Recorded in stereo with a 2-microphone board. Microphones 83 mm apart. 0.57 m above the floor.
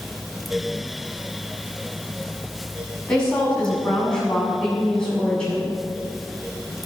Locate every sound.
3.1 s a woman speaking: 10° left (ahead or behind), 5.5 m